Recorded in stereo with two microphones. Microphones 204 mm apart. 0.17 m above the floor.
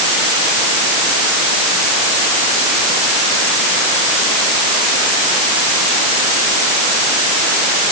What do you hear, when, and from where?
Only background noise.